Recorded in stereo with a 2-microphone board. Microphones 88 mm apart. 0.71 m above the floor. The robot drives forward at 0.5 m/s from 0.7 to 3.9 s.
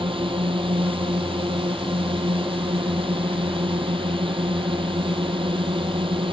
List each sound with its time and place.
0.0 s a drone: 85° right; by 6.3 s 80° right